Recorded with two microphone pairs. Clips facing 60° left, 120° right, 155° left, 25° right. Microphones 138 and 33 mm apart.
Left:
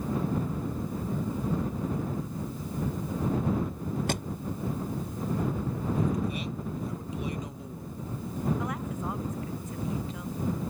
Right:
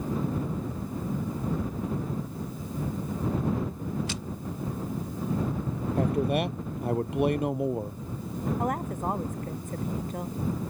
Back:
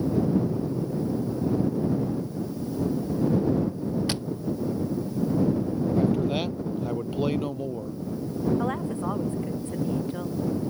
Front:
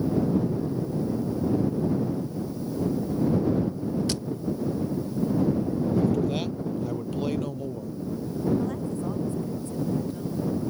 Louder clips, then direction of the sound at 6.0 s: Right 7 dB, back 1 dB; 130° right.